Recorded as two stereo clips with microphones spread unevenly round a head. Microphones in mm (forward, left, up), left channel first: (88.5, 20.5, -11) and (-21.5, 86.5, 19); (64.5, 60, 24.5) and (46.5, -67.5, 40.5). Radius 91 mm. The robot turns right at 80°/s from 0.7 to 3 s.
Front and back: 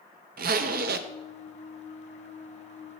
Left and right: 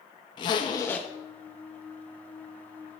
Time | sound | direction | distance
0.4 | a zipper | 140° left | 0.6 m